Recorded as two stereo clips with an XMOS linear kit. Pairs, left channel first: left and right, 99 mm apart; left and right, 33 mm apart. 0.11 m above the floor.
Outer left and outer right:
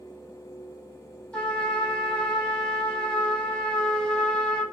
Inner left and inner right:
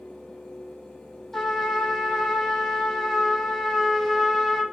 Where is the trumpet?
10° left (ahead or behind), 0.8 m.